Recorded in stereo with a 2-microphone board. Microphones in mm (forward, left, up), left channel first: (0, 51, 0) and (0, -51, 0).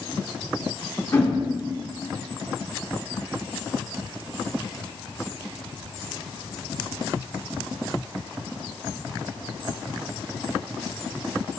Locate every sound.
1.1 s a whoosh: 25° left (ahead or behind), 1.8 m